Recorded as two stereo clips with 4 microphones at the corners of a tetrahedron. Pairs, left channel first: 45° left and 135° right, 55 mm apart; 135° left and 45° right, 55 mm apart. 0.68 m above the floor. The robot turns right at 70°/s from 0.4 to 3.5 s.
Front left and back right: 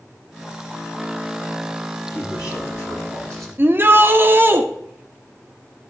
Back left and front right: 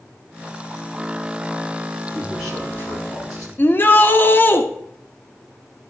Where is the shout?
Straight behind, 1.1 m.